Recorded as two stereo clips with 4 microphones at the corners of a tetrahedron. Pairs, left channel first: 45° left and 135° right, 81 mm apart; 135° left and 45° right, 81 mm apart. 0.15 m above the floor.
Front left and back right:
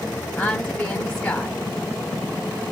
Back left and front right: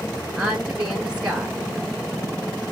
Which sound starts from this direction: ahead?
A woman speaking, at 0.4 s.